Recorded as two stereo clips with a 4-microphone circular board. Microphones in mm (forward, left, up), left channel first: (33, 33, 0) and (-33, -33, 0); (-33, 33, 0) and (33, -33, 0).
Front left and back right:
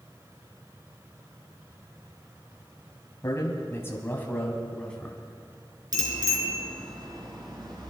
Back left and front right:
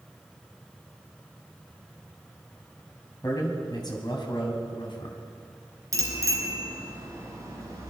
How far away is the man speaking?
About 2.5 m.